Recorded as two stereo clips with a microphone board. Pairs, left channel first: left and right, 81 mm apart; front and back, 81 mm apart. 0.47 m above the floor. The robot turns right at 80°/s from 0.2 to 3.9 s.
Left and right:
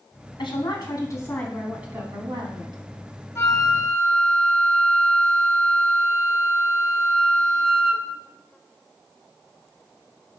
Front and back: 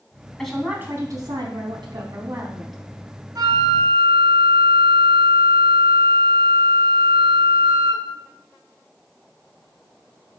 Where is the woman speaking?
80° left, 3 m; by 2.8 s 85° right, 3 m.